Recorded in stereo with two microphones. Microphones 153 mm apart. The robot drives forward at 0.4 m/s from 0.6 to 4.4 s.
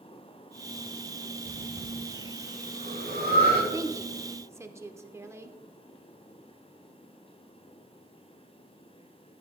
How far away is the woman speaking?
About 0.8 m.